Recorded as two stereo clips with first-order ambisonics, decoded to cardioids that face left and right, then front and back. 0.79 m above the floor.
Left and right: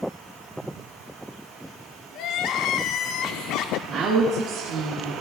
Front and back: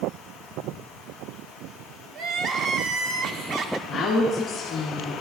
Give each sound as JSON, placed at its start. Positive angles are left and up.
{"t": 2.1, "sound": "crying", "azimuth_deg": 130, "distance_m": 0.6}
{"t": 3.9, "sound": "a woman speaking", "azimuth_deg": -70, "distance_m": 1.3}